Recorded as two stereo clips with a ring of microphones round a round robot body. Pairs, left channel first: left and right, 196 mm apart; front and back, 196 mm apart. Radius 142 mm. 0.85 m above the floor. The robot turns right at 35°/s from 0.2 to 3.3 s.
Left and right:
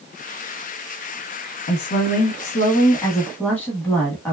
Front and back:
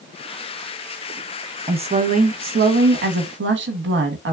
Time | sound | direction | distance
1.7 | a woman speaking | 115° left | 0.8 m